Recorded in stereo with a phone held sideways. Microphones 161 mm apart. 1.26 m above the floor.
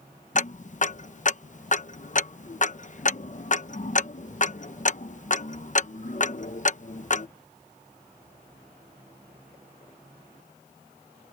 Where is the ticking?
50° left (ahead or behind).